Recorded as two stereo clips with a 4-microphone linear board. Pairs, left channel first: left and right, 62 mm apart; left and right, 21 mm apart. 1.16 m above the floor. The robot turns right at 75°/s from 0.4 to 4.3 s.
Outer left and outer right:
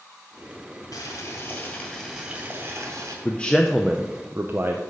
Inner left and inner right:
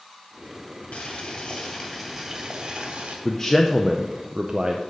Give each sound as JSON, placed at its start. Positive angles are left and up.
{"t": 0.9, "sound": "boiling", "azimuth_deg": 95, "distance_m": 2.0}
{"t": 3.2, "sound": "a man speaking", "azimuth_deg": 145, "distance_m": 0.5}